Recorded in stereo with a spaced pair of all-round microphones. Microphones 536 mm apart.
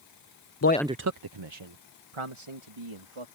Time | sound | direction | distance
0.6 | a man speaking | 35° left (ahead or behind) | ?